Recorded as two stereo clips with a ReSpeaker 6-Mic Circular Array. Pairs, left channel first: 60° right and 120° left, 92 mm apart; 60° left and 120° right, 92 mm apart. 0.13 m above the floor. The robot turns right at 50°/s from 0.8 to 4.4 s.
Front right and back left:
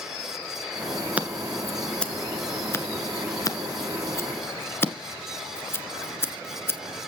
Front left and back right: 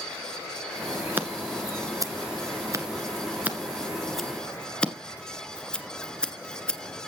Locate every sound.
1.2 s scissors: 175° right, 1.6 m; by 6.8 s 15° right, 1.6 m